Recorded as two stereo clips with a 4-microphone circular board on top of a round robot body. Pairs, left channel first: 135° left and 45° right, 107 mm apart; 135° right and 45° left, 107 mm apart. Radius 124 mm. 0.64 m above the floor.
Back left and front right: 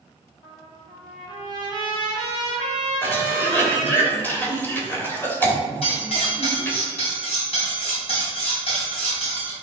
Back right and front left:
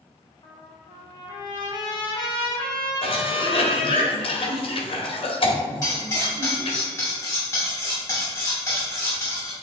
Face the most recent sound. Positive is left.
turn(degrees=160)